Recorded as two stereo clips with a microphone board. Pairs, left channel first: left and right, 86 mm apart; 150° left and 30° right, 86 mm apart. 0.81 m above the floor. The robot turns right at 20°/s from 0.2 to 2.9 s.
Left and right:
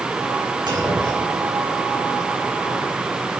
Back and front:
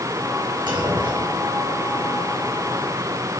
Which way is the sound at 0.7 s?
55° right.